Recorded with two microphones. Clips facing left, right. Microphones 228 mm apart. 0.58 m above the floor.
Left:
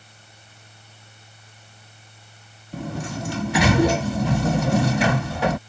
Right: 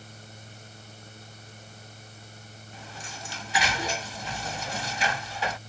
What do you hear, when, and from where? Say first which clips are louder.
2.7 s a sliding door: left 17 dB; 60° left (ahead or behind)